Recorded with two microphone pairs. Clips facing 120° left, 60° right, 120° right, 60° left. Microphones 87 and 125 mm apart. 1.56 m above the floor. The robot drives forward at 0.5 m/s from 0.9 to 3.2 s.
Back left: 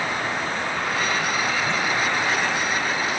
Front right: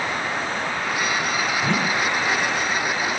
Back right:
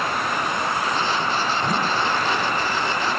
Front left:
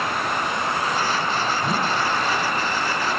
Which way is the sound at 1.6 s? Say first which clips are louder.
Front right 1 dB, even; 25° right.